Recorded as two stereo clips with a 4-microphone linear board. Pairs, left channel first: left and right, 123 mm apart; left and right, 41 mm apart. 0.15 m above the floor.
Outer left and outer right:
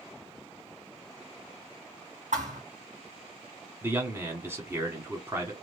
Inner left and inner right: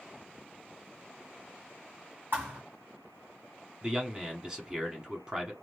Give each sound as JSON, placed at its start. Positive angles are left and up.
{"t": 2.3, "sound": "a thud", "side_deg": -70, "distance_m": 2.5}
{"t": 3.8, "sound": "a man speaking", "side_deg": -20, "distance_m": 1.1}